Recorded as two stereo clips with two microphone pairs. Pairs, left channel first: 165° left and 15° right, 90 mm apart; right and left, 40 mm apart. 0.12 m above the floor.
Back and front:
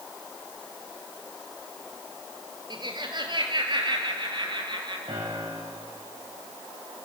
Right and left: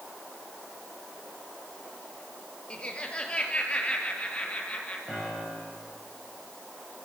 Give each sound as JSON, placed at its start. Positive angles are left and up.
{"t": 2.7, "sound": "laughter", "azimuth_deg": -30, "distance_m": 3.0}
{"t": 5.1, "sound": "a piano", "azimuth_deg": 10, "distance_m": 9.5}